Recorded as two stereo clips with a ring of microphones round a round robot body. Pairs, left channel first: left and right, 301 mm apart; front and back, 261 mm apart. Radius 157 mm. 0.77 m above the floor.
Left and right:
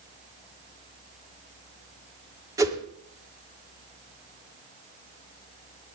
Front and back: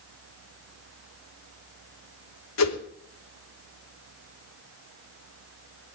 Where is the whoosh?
10° right, 2.5 m.